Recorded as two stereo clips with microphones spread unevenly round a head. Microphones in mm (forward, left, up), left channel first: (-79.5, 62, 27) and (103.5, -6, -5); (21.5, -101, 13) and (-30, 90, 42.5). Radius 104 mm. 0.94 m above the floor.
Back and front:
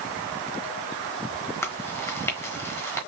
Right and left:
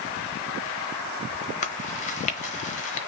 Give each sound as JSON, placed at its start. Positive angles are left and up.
{"t": 1.6, "sound": "chewing", "azimuth_deg": -130, "distance_m": 1.0}